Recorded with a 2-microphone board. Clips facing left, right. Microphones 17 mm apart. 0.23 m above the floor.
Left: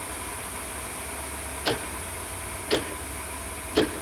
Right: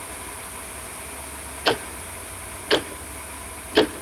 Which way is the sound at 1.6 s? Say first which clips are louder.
Right 6 dB; 90° right.